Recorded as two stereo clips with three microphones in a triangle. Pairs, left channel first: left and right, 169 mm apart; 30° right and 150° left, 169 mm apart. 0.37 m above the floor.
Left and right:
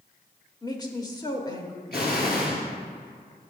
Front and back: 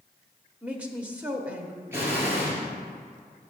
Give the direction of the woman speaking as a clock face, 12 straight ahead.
9 o'clock.